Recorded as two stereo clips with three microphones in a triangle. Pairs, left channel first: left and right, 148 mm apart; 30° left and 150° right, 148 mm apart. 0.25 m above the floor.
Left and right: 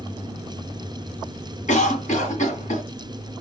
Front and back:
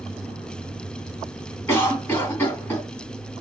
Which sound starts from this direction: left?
A cough, at 1.7 s.